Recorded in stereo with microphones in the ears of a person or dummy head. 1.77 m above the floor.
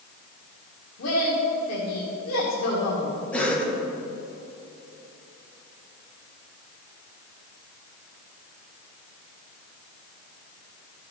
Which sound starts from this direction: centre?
A cough, at 3.3 s.